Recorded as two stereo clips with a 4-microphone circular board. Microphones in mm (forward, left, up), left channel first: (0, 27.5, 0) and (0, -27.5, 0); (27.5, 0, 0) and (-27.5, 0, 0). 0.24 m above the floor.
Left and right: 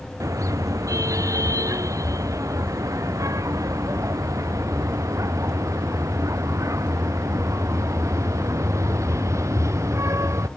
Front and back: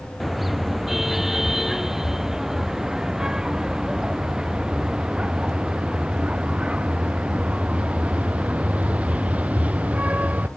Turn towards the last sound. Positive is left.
turn(degrees=-115)